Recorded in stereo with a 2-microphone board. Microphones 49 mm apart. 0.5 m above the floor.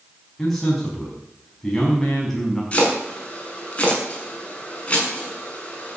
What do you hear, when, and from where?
0.4 s a man speaking: 10° left (ahead or behind), 5 m
2.7 s chopping: 25° left (ahead or behind), 6.5 m